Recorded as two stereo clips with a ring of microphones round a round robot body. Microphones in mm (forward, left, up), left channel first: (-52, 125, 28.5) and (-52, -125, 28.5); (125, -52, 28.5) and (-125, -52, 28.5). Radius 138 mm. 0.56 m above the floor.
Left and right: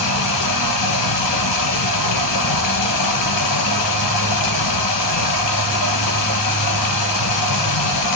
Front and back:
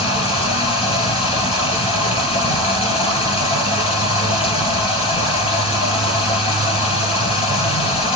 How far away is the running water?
About 3 m.